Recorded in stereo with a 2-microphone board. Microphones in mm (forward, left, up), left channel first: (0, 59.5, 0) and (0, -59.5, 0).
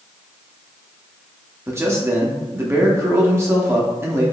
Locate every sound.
1.7 s a man speaking: 20° right (ahead or behind), 0.6 m